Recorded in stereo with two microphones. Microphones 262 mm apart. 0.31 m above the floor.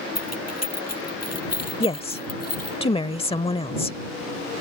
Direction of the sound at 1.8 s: 20° left (ahead or behind).